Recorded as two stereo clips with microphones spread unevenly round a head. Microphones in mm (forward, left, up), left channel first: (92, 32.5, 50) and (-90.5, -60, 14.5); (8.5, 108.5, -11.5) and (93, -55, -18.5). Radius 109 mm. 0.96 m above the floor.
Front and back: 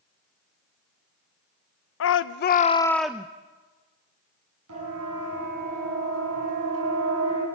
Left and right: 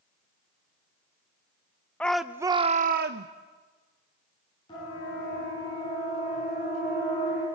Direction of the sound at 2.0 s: 35° left.